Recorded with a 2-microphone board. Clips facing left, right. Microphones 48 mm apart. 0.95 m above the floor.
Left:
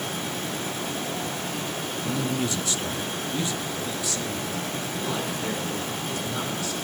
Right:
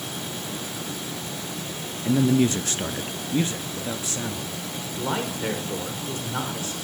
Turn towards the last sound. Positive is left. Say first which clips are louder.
# right 4 dB
turn(degrees=-35)  # may be behind; listen again after turning